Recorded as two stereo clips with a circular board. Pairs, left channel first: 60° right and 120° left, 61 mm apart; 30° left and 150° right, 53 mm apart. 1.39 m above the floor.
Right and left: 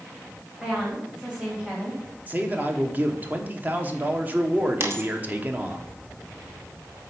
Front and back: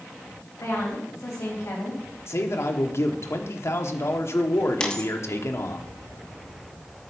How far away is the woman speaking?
About 3 m.